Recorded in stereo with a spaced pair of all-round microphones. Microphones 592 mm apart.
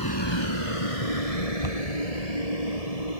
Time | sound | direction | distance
0.0 | a vehicle | 35° left (ahead or behind) | ?
1.6 | a cupboard door | 65° left (ahead or behind) | ?